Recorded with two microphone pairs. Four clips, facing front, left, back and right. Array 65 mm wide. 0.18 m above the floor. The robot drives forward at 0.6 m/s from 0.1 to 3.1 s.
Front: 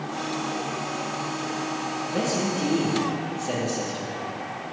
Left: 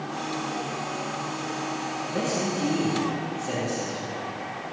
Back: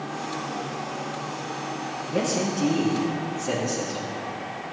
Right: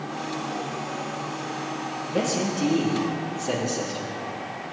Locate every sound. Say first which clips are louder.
2.1 s a man speaking: right 3 dB, back 1 dB; 160° right, 4.5 m; by 4.2 s 165° right, 5 m